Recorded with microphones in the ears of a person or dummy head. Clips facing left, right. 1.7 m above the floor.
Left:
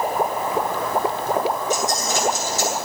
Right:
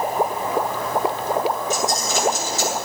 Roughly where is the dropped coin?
Right.